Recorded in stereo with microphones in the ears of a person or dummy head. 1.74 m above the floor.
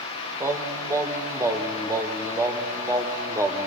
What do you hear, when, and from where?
0.4 s singing: 15° right (ahead or behind), 1.2 m